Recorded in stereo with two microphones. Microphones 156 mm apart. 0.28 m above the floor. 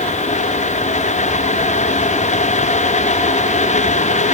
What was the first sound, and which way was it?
Only background noise.